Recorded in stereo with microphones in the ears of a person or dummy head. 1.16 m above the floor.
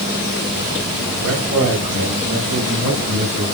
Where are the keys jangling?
I don't hear keys jangling.